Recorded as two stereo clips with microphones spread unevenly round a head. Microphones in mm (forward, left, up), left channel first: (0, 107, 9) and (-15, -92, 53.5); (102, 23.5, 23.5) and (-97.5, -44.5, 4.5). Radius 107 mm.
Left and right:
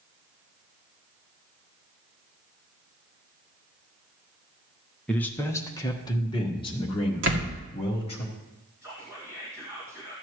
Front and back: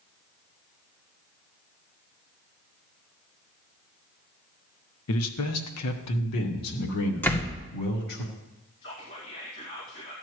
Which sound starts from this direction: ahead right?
A door slam, at 7.2 s.